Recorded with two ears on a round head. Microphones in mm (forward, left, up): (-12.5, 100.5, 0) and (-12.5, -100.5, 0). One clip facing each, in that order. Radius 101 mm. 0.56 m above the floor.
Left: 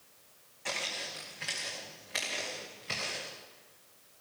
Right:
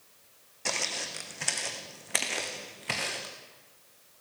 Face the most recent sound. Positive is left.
turn(degrees=-75)  # may be behind; listen again after turning